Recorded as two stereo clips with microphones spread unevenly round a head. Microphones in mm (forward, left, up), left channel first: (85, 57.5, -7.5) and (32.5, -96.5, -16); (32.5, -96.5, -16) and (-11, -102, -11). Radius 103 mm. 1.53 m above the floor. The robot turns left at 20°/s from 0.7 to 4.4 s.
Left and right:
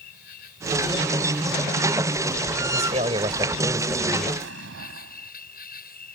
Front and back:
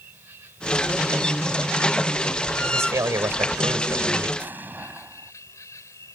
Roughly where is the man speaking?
Behind.